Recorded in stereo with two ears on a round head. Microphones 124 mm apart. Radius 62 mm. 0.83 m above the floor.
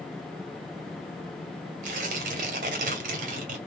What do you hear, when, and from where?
1.8 s tearing paper: 65° right (ahead or behind), 2.5 m